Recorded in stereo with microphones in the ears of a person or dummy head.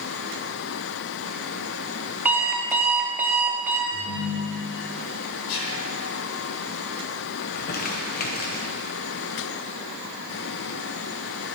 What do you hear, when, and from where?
2.2 s an alarm clock: 15° right (ahead or behind), 1.6 m
3.9 s a ringtone: 10° left (ahead or behind), 2.5 m
5.5 s whispering: 85° left, 2.5 m
7.4 s crumpling: 55° left (ahead or behind), 1.2 m